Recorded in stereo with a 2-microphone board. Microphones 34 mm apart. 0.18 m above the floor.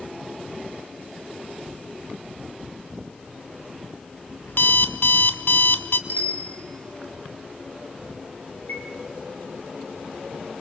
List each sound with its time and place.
4.5 s an alarm clock: 60° left (ahead or behind), 1.4 m
6.1 s a bicycle bell: 45° left (ahead or behind), 4 m
8.7 s a chime: 80° left, 5.5 m